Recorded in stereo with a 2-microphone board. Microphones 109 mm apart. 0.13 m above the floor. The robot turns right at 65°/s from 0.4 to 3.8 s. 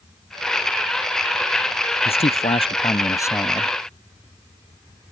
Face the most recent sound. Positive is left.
turn(degrees=-175)